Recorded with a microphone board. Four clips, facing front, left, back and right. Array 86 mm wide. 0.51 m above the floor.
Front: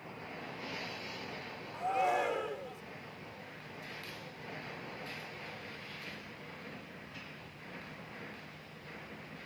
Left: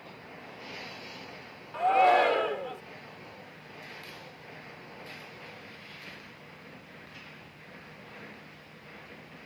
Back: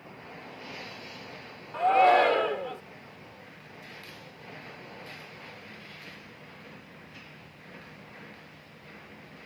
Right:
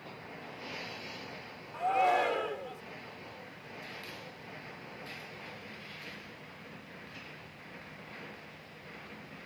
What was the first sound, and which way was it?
A shout, 150° left.